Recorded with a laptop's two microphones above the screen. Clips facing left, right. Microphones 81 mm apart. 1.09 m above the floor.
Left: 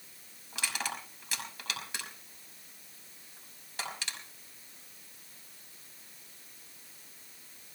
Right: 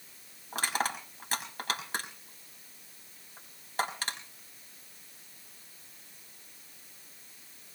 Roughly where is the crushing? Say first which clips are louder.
Right 5 dB; right.